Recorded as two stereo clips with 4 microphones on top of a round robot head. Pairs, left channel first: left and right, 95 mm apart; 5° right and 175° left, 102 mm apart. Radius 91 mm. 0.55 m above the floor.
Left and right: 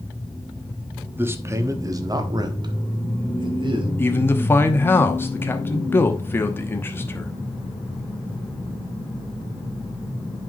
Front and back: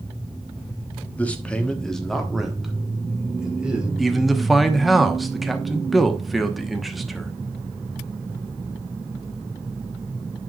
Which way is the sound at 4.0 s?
85° left.